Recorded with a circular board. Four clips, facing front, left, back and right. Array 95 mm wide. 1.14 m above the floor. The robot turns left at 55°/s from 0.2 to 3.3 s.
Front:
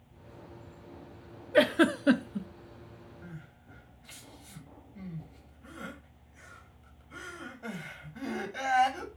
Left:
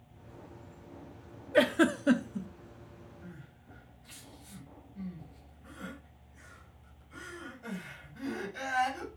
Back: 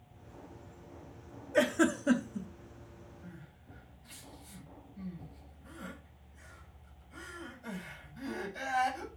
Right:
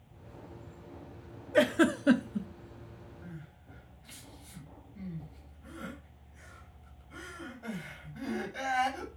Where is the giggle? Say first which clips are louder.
Even, front 4 dB; 20° left, 0.6 m; by 2.5 s 30° right, 0.6 m.